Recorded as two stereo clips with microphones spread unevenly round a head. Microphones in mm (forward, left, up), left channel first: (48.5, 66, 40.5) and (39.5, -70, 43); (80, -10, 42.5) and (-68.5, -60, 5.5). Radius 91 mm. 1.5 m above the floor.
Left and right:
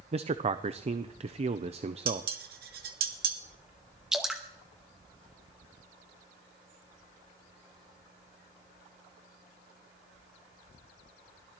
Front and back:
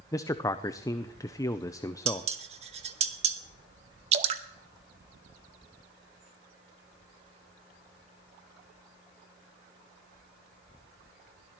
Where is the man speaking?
50° right, 0.6 m.